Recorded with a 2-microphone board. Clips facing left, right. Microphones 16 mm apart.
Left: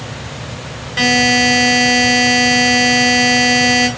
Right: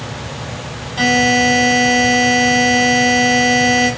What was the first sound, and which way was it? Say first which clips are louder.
A buzzer: left 1 dB; 60° left (ahead or behind).